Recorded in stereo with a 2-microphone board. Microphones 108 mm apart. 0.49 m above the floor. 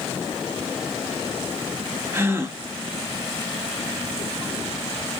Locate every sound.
2.1 s a gasp: 20° right (ahead or behind), 0.7 m